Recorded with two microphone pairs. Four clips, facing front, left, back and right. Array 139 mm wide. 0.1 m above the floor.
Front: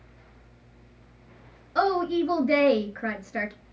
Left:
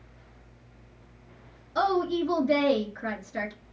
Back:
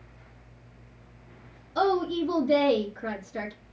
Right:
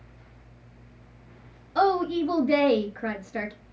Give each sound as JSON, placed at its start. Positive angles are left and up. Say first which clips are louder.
{"t": 1.8, "sound": "a woman speaking", "louder": "right 3 dB, front 1 dB", "azimuth_deg": -30, "distance_m": 1.3}